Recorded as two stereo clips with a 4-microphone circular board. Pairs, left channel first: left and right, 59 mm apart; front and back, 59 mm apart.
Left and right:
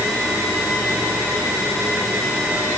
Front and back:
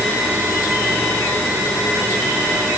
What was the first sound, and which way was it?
Only background noise.